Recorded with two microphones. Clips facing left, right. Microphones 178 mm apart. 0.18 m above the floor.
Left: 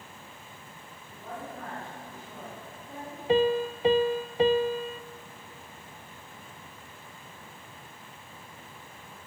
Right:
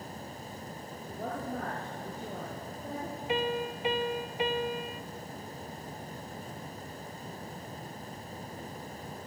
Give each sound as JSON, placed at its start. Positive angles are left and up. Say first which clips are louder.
{"t": 1.1, "sound": "a woman speaking", "louder": "right 4 dB", "side_deg": -80, "distance_m": 6.5}
{"t": 3.3, "sound": "a piano", "louder": "left 8 dB", "side_deg": 35, "distance_m": 0.7}